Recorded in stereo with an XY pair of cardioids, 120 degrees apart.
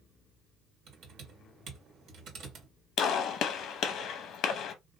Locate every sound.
0.9 s typing on a keyboard: 65° right, 2 m
3.0 s a gunshot: 65° left, 0.7 m